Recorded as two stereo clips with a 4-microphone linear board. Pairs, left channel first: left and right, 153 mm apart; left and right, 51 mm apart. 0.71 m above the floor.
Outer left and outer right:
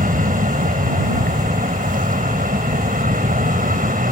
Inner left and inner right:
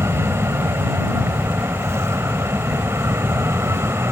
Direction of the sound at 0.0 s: 60° right (ahead or behind).